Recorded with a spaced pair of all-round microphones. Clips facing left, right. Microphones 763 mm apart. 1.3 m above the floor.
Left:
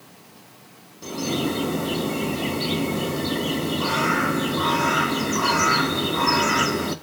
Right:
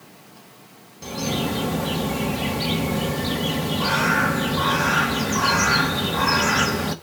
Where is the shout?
I don't hear a shout.